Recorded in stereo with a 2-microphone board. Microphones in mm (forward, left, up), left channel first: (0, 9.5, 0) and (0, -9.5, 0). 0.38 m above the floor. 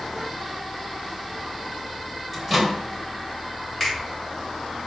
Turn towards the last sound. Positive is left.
turn(degrees=0)  # may be behind; listen again after turning